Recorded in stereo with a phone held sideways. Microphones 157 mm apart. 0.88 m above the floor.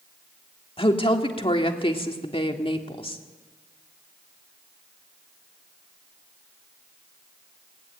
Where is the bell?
No bell in this recording.